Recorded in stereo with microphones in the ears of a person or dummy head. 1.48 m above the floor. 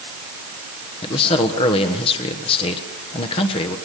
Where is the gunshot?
I don't hear a gunshot.